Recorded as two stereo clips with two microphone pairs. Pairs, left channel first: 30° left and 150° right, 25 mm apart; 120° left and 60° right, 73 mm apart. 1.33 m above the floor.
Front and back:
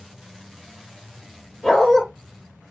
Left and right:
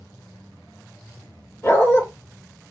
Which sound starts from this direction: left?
A dog barking, at 1.6 s.